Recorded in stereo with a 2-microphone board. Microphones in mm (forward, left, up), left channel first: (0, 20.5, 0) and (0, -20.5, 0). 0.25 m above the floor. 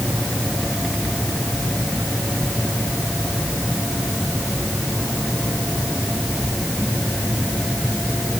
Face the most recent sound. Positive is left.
No sound to turn to.